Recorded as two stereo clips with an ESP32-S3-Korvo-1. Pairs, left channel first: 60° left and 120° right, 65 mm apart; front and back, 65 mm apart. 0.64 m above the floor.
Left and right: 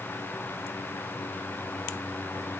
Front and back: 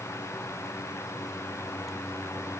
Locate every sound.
Only background noise.